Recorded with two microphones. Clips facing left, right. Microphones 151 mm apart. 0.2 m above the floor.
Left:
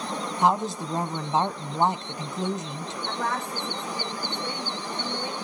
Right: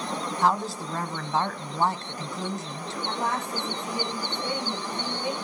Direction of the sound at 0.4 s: 20° left (ahead or behind).